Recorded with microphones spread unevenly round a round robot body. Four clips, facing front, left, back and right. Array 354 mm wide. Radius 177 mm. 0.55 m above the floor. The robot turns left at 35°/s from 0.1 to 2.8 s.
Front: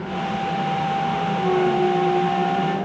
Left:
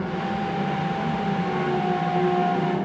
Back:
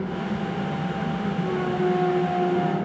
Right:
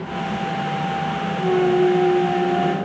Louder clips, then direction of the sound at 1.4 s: Right 7 dB, front 7 dB; 60° right.